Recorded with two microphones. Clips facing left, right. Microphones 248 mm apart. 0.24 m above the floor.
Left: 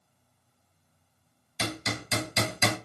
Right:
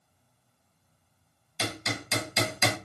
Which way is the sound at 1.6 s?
20° left (ahead or behind).